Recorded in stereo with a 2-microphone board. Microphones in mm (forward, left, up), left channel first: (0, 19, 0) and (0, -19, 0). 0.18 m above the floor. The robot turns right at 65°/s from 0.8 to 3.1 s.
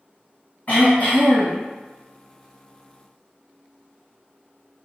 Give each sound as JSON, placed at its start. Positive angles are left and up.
{"t": 0.7, "sound": "throat clearing", "azimuth_deg": 100, "distance_m": 2.0}